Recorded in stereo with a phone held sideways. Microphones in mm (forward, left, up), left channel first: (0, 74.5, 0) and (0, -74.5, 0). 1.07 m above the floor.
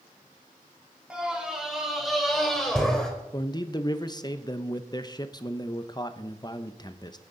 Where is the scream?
5° right (ahead or behind), 3.5 m; by 3.1 s 5° left (ahead or behind), 4.5 m.